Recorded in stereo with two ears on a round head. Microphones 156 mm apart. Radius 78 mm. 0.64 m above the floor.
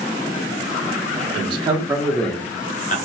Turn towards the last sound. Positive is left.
turn(degrees=45)  # may be behind; listen again after turning